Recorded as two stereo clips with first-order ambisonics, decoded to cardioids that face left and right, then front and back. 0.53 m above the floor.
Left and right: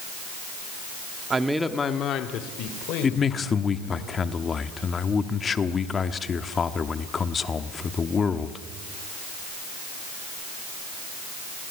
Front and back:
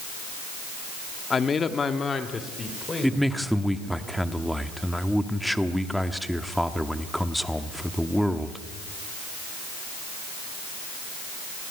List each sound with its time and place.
1.3 s a man speaking: 50° right, 1.0 m; by 4.0 s 80° left, 3.5 m
3.0 s a man speaking: 90° left, 0.9 m